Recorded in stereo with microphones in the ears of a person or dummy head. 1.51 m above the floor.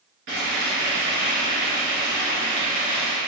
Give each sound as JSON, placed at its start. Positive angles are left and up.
{"t": 0.3, "sound": "frying", "side_deg": -60, "distance_m": 1.6}